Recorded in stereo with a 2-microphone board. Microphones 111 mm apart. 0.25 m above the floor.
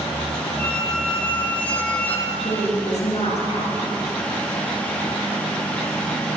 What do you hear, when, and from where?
0.6 s a squeak: 15° left (ahead or behind), 1.3 m
2.3 s a woman speaking: 65° left (ahead or behind), 3.5 m